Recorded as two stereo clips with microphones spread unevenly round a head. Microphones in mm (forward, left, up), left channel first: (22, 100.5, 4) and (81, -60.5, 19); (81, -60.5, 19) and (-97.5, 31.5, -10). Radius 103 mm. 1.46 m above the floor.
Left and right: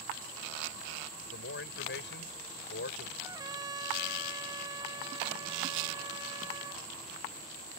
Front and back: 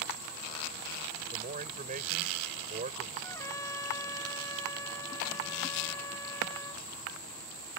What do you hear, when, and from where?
1.3 s a man speaking: 95° left
3.2 s a trumpet: 60° right